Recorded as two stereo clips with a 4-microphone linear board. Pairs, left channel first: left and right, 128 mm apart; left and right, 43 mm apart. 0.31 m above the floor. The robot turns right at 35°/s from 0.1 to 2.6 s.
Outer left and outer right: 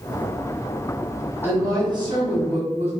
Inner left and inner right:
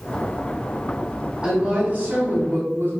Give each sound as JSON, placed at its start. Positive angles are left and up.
{"t": 1.4, "sound": "a woman speaking", "azimuth_deg": -155, "distance_m": 2.5}